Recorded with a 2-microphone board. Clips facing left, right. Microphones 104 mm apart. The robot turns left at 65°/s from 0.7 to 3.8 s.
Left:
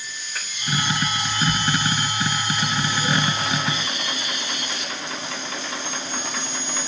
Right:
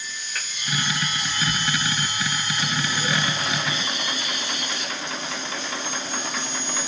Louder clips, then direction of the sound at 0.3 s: Even; 5° left (ahead or behind).